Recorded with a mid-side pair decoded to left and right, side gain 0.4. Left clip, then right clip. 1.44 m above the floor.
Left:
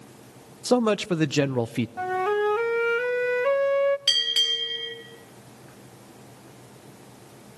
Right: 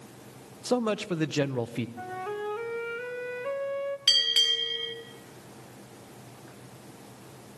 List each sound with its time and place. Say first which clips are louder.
0.7 s a man speaking: left 6 dB; 40° left, 0.7 m
2.0 s a flute: left 12 dB; 65° left, 0.6 m
4.1 s a bell: left 1 dB; 5° right, 4 m